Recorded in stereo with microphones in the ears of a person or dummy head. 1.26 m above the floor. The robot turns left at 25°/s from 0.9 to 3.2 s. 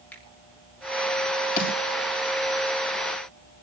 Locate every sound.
0.1 s a finger snap: 10° left (ahead or behind), 6.5 m
1.6 s a snare drum: 45° left (ahead or behind), 6 m; by 1.8 s 40° left (ahead or behind), 6 m